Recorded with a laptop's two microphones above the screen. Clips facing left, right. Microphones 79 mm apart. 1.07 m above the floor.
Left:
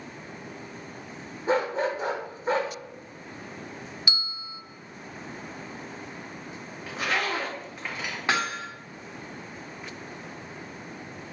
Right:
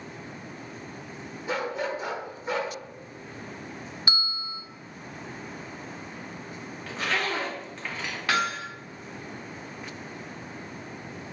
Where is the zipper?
10° left (ahead or behind), 2 m.